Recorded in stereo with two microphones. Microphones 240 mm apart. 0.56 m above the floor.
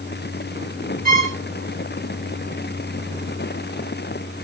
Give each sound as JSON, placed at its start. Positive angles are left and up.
{"t": 1.1, "sound": "a violin", "side_deg": -35, "distance_m": 1.7}